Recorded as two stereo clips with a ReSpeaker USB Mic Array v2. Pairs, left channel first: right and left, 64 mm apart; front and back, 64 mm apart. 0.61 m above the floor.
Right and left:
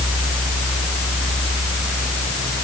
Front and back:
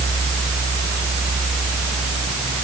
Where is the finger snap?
No finger snap in this recording.